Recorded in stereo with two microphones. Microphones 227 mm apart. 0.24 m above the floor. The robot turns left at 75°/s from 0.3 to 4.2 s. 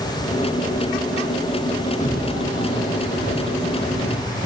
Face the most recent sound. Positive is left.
turn(degrees=-20)  # may be behind; listen again after turning